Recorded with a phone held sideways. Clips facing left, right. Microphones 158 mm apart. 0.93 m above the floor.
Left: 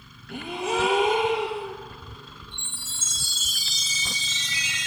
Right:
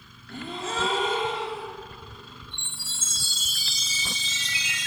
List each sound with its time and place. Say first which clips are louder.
0.3 s a gasp: left 5 dB; 15° left (ahead or behind), 4 m
2.5 s a chime: left 1 dB; 55° right (ahead or behind), 9.5 m